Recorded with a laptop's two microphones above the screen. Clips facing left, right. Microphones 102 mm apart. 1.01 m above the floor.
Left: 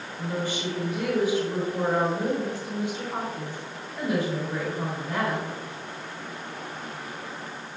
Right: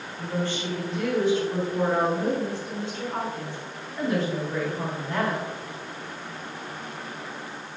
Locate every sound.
0.2 s a woman speaking: 10° left (ahead or behind), 2.5 m